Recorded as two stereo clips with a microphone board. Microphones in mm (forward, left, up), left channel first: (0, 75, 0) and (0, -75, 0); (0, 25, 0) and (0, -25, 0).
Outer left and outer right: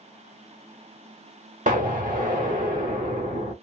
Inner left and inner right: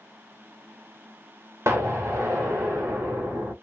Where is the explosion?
65° right (ahead or behind), 1.5 m.